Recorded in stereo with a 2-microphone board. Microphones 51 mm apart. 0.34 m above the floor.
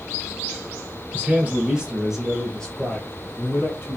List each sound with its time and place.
1.1 s a man speaking: 30° right (ahead or behind), 1.2 m; by 4.0 s 40° left (ahead or behind), 1.5 m